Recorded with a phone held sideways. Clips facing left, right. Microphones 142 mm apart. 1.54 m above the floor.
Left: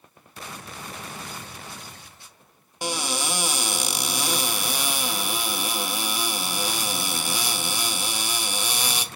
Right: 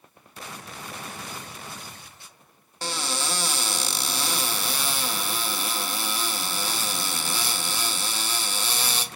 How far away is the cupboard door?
About 0.5 m.